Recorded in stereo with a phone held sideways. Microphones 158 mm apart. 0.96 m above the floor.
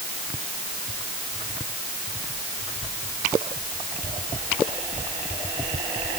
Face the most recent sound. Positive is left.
No sound to turn to.